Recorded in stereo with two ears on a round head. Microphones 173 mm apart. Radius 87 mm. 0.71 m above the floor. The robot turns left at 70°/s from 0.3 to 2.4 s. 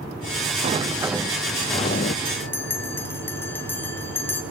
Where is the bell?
20° left (ahead or behind), 1.3 m; by 4.4 s 10° left (ahead or behind), 1.3 m.